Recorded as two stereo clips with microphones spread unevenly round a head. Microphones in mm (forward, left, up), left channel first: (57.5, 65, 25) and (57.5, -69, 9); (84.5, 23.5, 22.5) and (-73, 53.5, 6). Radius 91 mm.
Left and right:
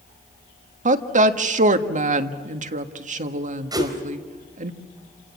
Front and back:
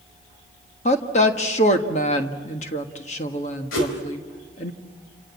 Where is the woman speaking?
65° right, 1.6 m.